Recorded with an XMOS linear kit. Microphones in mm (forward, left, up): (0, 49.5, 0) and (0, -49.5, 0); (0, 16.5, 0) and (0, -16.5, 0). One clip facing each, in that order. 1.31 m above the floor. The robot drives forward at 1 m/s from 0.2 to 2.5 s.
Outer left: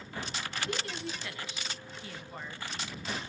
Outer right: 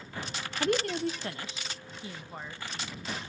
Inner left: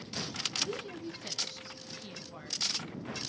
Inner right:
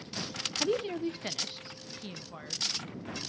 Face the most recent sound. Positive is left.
turn(degrees=-15)  # may be behind; listen again after turning